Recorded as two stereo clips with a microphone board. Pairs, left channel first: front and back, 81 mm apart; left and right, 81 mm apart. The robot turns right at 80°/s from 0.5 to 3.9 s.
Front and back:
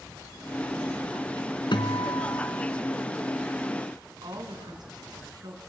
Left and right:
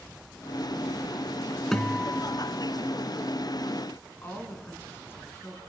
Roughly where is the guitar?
Ahead.